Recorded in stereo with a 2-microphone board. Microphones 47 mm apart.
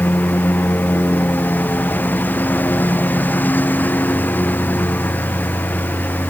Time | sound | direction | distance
0.0 | a lawn mower | 40° left (ahead or behind) | ?